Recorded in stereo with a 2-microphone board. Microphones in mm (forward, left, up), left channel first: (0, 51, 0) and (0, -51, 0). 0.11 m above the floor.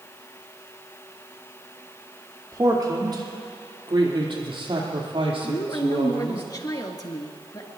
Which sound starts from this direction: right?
A man speaking, at 2.5 s.